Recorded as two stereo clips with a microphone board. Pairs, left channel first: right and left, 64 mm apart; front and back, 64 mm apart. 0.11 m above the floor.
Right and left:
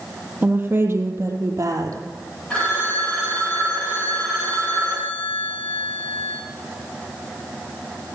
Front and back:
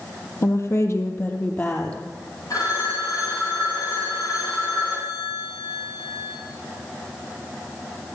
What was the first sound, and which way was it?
A woman speaking, 30° left.